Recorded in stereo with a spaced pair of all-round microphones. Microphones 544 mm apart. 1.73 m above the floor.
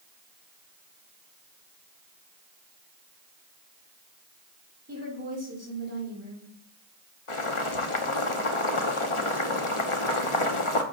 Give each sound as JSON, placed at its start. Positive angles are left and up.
{"t": 4.9, "sound": "a woman speaking", "side_deg": -25, "distance_m": 4.0}
{"t": 7.3, "sound": "boiling", "side_deg": 65, "distance_m": 1.0}